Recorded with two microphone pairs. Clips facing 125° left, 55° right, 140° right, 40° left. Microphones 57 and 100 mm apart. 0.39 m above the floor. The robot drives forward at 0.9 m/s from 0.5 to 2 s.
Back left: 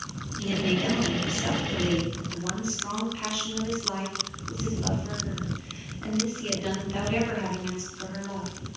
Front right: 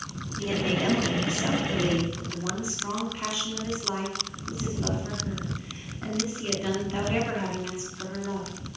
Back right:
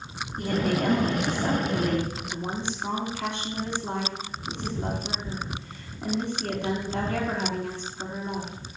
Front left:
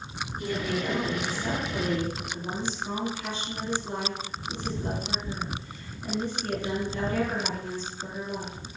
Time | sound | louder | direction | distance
0.4 | a woman speaking | even, back right 5 dB | 110° right | 3 m